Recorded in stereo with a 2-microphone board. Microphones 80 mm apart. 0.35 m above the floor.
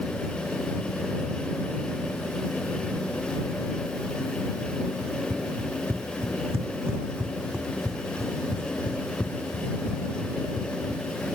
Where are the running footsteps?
60° right (ahead or behind); by 11.2 s 40° left (ahead or behind).